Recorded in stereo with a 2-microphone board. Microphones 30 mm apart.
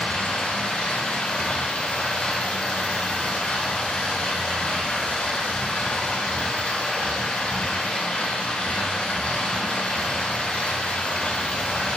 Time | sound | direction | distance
0.0 | running water | 60° left (ahead or behind) | 2.5 m